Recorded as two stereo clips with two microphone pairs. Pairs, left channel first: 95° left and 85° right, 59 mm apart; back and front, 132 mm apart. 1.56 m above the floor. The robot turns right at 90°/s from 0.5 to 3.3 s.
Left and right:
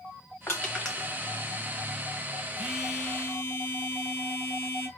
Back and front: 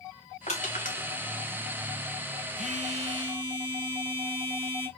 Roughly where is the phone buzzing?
Ahead.